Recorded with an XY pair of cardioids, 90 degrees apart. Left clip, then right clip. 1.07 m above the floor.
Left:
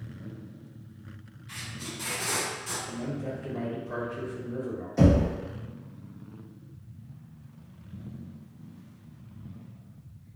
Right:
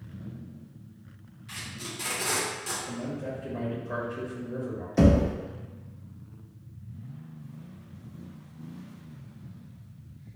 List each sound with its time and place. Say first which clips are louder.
1.5 s tape being pulled: right 1 dB; 60° right, 0.9 m
2.9 s a man speaking: even; 60° right, 1.2 m
5.0 s knocking: right 1 dB; 50° right, 0.7 m